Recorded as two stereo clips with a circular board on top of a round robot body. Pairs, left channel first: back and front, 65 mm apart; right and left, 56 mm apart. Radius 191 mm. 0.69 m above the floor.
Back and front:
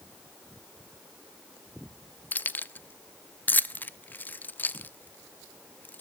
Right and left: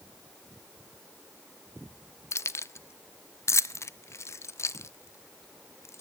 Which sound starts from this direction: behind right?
Keys jangling, at 2.3 s.